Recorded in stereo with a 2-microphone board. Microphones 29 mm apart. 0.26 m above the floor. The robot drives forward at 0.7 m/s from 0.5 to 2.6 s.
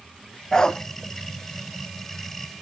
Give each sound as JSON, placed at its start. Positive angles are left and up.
{"t": 0.5, "sound": "a dog barking", "side_deg": 25, "distance_m": 0.7}